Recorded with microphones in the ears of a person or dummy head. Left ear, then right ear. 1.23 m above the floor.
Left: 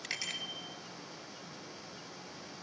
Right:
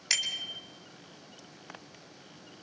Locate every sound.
0.1 s a bicycle bell: 35° right (ahead or behind), 4.5 m